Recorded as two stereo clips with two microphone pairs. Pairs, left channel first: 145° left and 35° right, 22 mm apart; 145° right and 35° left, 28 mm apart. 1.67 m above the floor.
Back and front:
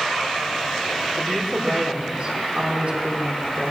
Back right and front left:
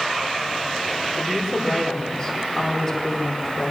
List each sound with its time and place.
1.2 s a woman speaking: 70° right, 4.5 m